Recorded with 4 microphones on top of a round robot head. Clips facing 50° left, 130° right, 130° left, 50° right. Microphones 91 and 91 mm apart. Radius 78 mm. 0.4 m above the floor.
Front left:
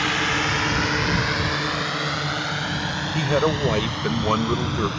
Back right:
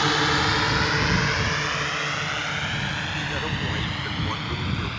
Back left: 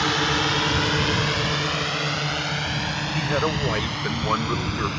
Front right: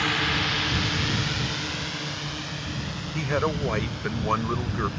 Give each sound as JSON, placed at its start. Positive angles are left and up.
{"t": 0.0, "sound": "a drone", "azimuth_deg": 180}
{"t": 3.1, "sound": "a man speaking", "azimuth_deg": 45}